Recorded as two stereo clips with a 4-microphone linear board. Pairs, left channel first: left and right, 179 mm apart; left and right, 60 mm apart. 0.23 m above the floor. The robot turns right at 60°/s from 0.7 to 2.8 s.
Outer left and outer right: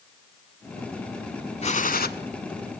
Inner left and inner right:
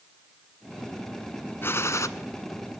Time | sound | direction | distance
1.6 | a gunshot | 35° left (ahead or behind) | 0.8 m